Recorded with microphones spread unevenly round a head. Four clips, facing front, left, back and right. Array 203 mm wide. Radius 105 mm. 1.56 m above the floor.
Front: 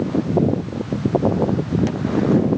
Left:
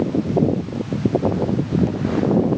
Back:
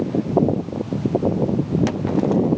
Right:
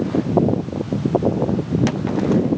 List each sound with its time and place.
Only background noise.